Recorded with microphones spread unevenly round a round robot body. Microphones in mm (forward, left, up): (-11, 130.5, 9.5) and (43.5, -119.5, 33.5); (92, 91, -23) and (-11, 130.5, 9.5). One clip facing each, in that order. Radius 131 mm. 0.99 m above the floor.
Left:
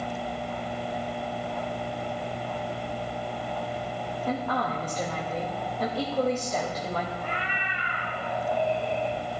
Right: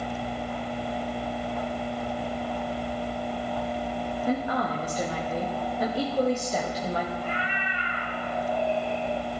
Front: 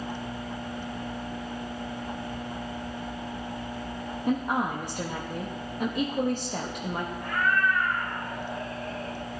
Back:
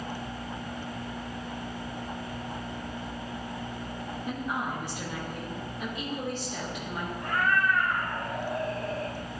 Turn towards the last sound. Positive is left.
turn(degrees=145)